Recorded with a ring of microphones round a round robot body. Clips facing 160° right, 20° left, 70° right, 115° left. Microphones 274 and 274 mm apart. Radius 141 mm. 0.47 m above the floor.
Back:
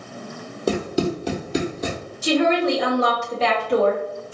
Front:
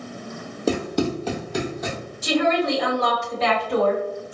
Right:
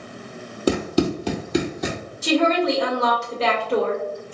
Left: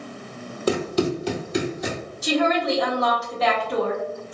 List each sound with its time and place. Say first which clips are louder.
0.7 s running footsteps: back 1 dB, right 2 dB; 65° right, 1.2 m; by 2.0 s 100° right, 1.2 m
2.2 s a woman speaking: back 2 dB, right 3 dB; 115° right, 1.8 m